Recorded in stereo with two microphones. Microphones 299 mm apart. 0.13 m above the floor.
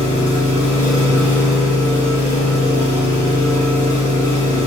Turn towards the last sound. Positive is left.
turn(degrees=25)  # may be behind; listen again after turning